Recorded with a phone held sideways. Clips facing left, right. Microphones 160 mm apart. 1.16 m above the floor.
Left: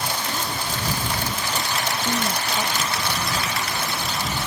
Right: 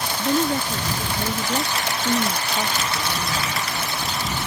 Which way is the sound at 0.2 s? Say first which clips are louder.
Right 8 dB; 60° right (ahead or behind).